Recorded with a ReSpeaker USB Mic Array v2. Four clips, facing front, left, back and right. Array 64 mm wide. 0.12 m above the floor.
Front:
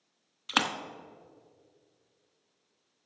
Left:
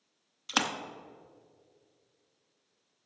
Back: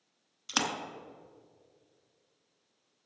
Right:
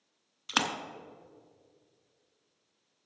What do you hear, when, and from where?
0.5 s a splash: 15° right, 0.8 m